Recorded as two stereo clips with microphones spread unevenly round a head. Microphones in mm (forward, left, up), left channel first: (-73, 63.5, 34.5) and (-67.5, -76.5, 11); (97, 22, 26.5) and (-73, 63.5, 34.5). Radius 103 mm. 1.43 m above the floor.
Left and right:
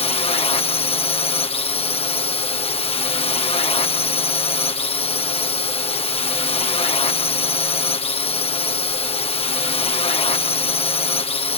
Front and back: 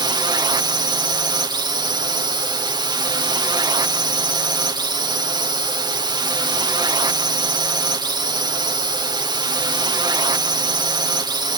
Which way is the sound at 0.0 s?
115° left.